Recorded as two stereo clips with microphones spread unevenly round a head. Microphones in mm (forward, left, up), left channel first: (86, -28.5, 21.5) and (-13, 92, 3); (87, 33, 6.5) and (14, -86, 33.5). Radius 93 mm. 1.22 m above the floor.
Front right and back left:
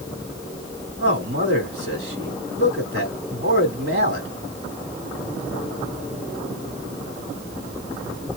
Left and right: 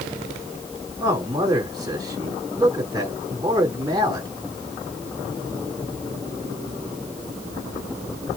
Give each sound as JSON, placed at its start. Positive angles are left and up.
{"t": 1.0, "sound": "a man speaking", "azimuth_deg": 170, "distance_m": 2.0}